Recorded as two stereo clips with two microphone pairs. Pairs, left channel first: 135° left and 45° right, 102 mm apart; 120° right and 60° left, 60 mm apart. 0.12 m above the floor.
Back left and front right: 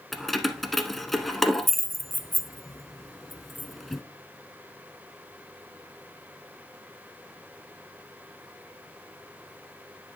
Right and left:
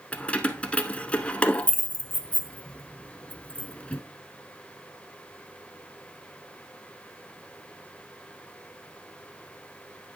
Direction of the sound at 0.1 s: 145° right.